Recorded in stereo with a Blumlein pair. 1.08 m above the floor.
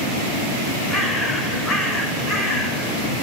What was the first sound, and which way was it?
A bird, 10° left.